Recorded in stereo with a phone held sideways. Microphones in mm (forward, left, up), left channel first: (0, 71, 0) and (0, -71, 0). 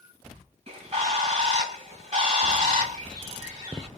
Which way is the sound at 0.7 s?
45° right (ahead or behind).